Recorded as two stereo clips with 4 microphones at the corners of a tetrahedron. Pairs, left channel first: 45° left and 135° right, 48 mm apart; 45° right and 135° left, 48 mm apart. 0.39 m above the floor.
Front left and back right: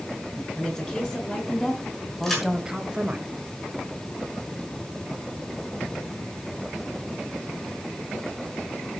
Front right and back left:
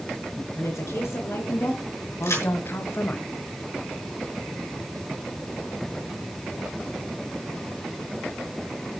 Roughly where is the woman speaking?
Ahead right.